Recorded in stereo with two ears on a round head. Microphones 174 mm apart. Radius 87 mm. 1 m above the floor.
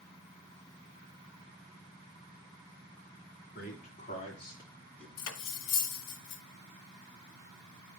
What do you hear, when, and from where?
3.5 s a man speaking: 50° left (ahead or behind), 2.5 m; by 5.1 s 5° left (ahead or behind), 2.5 m
5.2 s cutlery clinking: 70° left (ahead or behind), 0.8 m